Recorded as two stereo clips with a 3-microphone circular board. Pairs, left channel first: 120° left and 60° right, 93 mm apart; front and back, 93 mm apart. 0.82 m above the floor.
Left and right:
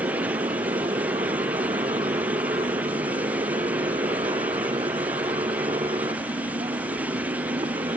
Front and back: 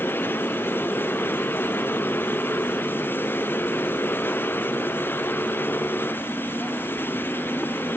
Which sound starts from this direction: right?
A motorcycle, at 0.0 s.